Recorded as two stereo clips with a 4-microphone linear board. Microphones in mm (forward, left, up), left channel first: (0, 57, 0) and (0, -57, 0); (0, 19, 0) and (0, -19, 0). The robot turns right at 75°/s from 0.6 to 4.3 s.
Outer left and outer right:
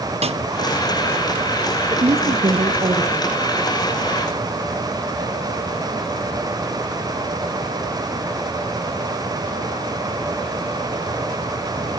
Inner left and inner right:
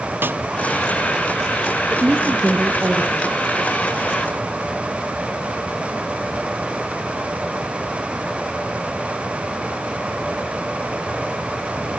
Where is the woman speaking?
125° right, 2.5 m; by 3.4 s 15° right, 2.5 m.